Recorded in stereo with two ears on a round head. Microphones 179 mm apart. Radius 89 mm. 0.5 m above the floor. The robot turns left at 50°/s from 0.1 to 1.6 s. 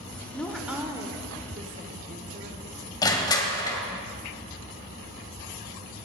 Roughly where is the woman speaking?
Ahead.